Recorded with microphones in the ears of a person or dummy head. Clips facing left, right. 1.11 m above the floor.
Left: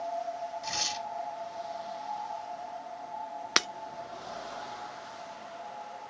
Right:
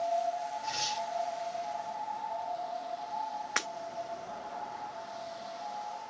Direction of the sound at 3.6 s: 50° left (ahead or behind).